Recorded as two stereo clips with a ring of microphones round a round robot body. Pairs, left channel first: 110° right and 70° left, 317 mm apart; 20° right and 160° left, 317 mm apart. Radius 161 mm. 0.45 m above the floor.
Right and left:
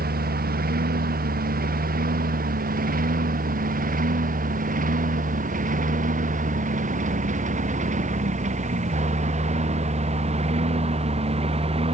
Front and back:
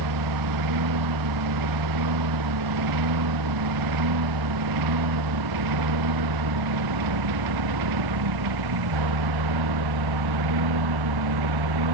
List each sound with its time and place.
0.0 s a lawn mower: 130° left; by 11.9 s 140° left